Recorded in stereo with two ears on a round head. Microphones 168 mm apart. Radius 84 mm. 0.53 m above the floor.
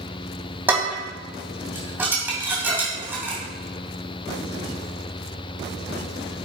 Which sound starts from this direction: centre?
Dishes clattering, at 0.7 s.